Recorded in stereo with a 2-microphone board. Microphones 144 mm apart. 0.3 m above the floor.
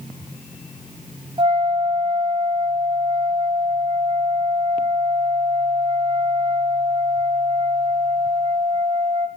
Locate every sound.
1.4 s a flute: 40° right (ahead or behind), 2 m